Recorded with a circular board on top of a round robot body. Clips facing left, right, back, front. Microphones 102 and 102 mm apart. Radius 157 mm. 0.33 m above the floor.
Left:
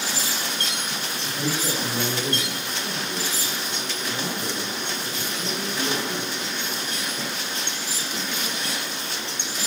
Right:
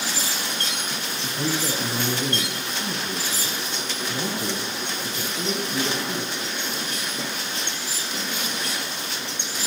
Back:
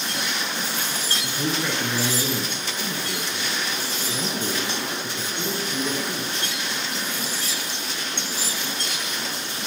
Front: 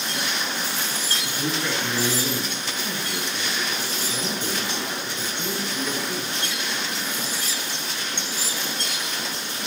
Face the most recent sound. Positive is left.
turn(degrees=-125)